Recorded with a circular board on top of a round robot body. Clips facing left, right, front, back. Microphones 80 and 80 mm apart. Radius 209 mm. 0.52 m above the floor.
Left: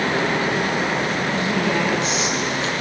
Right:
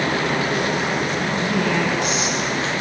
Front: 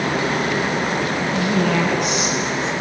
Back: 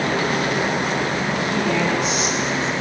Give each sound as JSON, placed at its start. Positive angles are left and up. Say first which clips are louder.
{"t": 1.3, "sound": "a woman speaking", "louder": "right 1 dB, front 4 dB", "azimuth_deg": 30, "distance_m": 9.0}